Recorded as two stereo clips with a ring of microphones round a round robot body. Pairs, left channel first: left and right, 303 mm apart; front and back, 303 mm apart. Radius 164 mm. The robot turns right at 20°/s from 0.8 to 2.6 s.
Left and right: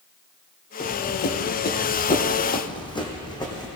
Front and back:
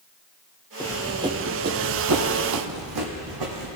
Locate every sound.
0.8 s running footsteps: 70° left, 0.6 m; by 3.7 s 165° left, 1.7 m